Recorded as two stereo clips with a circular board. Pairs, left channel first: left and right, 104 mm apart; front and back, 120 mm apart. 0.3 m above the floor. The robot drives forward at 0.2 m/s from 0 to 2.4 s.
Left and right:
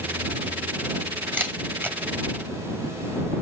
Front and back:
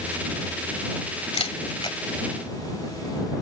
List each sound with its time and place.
1.3 s a camera shutter: 25° right, 1.1 m; by 2.0 s 30° right, 1.0 m